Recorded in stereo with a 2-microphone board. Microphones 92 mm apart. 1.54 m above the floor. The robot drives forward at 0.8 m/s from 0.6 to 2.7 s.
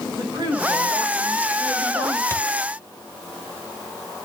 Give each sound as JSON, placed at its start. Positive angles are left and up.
{"t": 0.2, "sound": "a woman speaking", "side_deg": -35, "distance_m": 7.0}
{"t": 2.3, "sound": "a thud", "side_deg": 30, "distance_m": 1.5}